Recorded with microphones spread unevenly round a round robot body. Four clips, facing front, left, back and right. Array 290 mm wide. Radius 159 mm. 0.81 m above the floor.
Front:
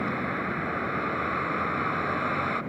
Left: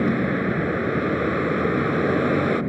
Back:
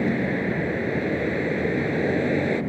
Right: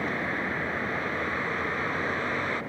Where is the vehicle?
120° left.